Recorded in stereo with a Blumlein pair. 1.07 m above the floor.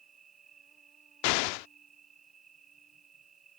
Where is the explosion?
45° left.